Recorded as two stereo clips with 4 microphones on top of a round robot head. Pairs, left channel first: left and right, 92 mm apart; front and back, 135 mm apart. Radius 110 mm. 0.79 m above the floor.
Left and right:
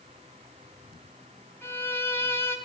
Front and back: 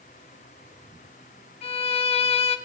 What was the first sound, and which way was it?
A violin, 30° left.